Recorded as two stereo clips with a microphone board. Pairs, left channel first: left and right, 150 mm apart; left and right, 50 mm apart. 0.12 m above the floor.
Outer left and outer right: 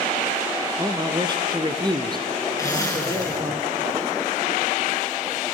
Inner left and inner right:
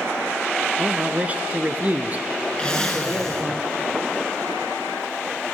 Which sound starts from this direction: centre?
A zipper, at 2.6 s.